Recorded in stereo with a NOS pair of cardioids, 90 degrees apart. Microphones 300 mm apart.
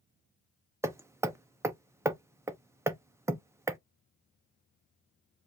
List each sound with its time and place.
0.8 s hammering: 10° right, 0.7 m